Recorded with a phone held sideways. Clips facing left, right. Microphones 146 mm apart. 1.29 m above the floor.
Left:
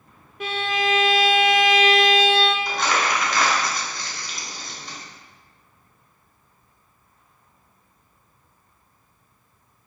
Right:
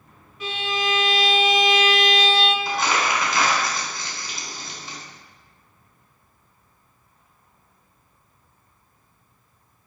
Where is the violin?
60° left (ahead or behind), 0.8 m.